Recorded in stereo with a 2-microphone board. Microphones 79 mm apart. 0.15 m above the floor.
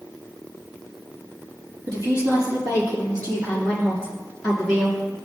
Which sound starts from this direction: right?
A woman speaking, at 1.9 s.